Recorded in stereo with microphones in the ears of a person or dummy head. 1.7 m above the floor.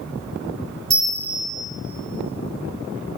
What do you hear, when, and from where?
0.9 s a bell: 30° right (ahead or behind), 4.5 m